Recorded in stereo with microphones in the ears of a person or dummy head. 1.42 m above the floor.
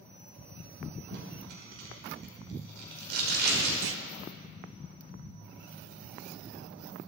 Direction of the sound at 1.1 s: 65° right (ahead or behind).